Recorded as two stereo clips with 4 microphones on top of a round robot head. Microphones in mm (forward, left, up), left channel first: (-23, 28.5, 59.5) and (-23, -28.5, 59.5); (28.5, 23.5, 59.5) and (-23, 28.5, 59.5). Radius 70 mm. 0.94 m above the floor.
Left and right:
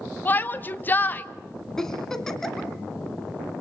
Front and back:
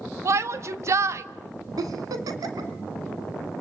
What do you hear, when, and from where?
0.2 s a shout: 145° left, 1.6 m
1.8 s a giggle: 175° left, 2.5 m